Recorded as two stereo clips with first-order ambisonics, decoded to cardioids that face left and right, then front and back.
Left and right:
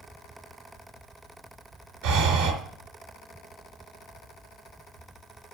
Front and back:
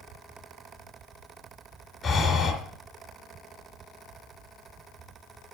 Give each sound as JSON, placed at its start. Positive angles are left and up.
{"t": 2.0, "sound": "breathing", "azimuth_deg": -75, "distance_m": 3.5}